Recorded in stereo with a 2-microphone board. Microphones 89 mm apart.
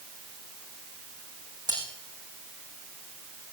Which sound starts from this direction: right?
Cutlery clinking, at 1.7 s.